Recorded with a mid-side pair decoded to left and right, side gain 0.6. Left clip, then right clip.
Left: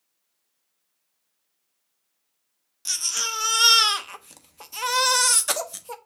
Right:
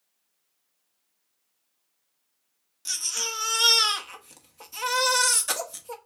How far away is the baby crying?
About 0.9 m.